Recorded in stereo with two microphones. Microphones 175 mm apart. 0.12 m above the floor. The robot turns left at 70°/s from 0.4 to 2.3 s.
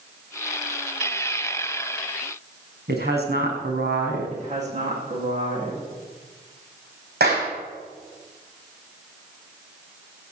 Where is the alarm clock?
I don't hear an alarm clock.